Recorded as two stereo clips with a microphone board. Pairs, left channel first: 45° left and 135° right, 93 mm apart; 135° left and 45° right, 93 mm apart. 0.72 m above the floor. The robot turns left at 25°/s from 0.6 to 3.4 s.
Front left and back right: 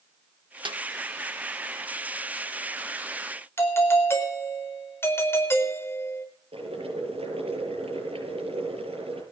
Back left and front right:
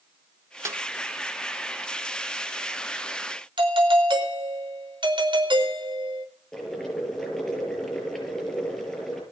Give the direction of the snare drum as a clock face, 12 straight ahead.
3 o'clock.